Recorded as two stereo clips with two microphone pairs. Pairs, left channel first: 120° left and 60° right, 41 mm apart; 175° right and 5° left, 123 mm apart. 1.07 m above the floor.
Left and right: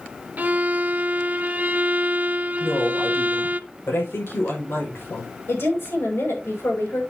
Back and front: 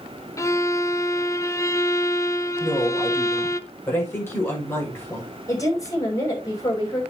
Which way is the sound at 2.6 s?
115° left.